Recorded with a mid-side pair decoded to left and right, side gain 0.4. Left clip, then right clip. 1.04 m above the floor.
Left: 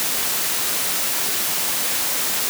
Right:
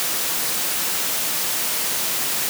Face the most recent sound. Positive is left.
No sound to turn to.